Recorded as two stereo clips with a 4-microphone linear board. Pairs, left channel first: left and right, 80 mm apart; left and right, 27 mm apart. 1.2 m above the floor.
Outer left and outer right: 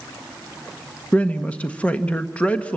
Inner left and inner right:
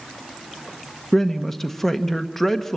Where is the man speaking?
15° left (ahead or behind), 1.1 m.